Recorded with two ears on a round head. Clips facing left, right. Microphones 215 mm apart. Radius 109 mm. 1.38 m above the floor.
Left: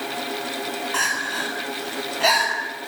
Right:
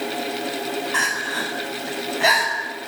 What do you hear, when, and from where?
0.9 s crying: centre (ahead or behind), 8.5 m